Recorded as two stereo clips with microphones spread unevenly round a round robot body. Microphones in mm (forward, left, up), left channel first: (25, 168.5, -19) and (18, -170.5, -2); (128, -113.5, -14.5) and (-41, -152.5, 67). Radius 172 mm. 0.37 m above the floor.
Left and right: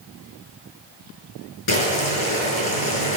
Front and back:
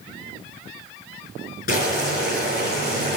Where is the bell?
No bell in this recording.